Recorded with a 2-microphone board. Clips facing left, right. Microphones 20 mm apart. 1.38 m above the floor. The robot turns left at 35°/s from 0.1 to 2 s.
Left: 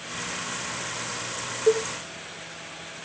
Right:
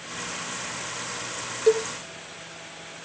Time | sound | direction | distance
1.7 | a cowbell | 30° right (ahead or behind) | 0.8 m